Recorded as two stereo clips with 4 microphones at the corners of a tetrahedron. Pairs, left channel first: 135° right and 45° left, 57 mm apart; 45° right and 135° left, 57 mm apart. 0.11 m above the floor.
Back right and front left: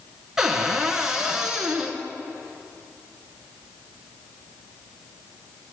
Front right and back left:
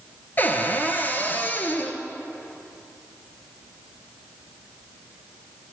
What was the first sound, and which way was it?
A cupboard door, 30° right.